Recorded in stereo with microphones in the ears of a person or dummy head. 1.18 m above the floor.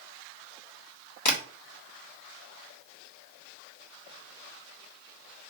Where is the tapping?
45° left (ahead or behind), 1.3 m.